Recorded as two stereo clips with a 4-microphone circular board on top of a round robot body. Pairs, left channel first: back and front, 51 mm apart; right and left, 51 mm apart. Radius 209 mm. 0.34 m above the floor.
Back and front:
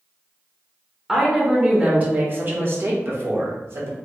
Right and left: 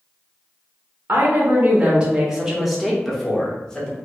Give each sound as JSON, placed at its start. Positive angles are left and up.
{"t": 1.1, "sound": "a woman speaking", "azimuth_deg": 75, "distance_m": 1.4}